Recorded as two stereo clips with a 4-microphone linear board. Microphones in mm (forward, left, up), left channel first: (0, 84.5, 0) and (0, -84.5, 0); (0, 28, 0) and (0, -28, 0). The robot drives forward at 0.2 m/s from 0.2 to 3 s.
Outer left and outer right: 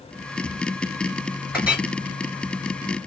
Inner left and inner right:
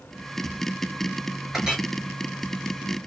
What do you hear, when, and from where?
1.5 s a clink: 10° right (ahead or behind), 1.8 m